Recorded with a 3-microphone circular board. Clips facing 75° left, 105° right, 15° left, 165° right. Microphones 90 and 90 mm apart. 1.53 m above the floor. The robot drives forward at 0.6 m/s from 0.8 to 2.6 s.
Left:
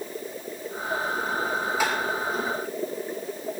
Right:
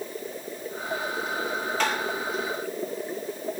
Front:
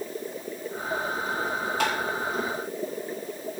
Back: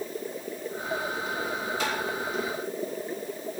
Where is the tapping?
5° right, 2.5 m.